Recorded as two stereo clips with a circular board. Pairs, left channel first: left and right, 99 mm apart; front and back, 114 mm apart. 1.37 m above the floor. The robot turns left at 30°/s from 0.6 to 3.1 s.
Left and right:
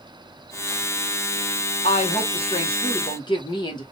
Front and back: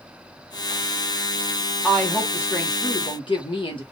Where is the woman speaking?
85° left, 1.4 m; by 3.8 s 45° left, 1.4 m.